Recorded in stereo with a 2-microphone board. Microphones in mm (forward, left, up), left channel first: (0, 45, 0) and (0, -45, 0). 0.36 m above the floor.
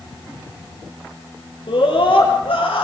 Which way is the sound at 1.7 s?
70° left (ahead or behind).